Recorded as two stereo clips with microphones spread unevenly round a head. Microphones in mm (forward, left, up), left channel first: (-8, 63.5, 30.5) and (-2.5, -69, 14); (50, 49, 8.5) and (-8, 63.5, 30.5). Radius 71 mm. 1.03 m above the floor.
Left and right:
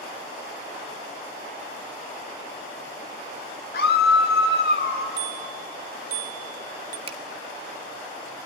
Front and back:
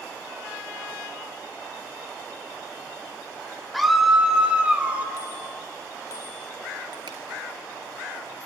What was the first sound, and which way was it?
A scream, 75° left.